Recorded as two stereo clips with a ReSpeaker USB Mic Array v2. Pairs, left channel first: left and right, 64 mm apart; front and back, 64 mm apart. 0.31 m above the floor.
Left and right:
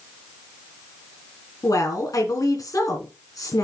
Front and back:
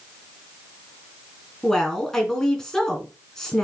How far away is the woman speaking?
About 3 m.